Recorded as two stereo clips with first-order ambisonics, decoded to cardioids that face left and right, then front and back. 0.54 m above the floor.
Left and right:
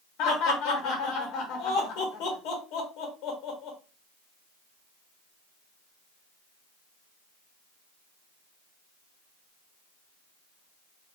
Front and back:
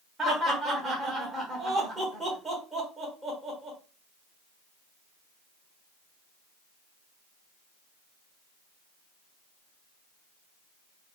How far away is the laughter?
About 1.3 m.